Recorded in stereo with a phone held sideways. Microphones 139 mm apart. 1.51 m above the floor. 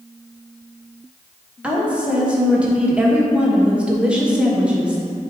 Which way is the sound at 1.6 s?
5° right (ahead or behind).